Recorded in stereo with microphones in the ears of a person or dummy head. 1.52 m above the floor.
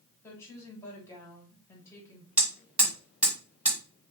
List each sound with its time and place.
0.2 s a woman speaking: 15° left (ahead or behind), 1.7 m
2.4 s hammering: 10° right (ahead or behind), 1.7 m